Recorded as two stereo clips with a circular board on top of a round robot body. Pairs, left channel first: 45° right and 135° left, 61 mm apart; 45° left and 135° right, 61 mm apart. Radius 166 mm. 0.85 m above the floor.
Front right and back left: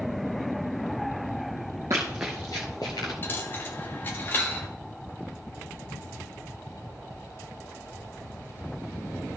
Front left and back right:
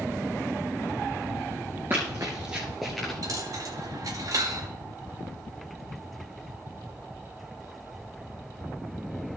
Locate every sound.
1.9 s running footsteps: 170° left, 0.9 m; by 3.1 s 40° right, 1.1 m
3.2 s a dropped coin: 105° right, 0.6 m